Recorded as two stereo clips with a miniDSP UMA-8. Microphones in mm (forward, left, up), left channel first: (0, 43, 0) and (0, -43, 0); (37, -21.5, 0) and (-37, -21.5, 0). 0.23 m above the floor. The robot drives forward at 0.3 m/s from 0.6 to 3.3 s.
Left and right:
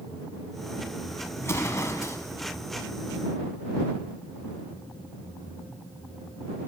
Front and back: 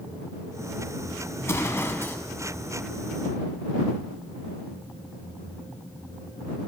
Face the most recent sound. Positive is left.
turn(degrees=80)